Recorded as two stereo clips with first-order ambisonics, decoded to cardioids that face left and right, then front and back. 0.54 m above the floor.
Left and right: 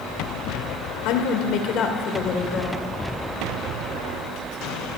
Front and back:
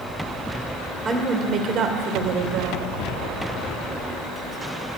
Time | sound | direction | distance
1.1 | a woman speaking | 110° left | 1.7 m